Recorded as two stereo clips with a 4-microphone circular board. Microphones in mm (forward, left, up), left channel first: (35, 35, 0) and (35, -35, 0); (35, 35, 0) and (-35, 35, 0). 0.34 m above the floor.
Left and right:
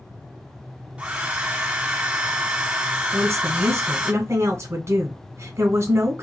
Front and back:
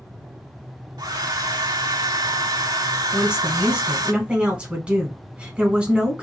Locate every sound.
1.0 s a hair dryer: 165° right, 0.8 m
3.1 s a woman speaking: 110° right, 1.4 m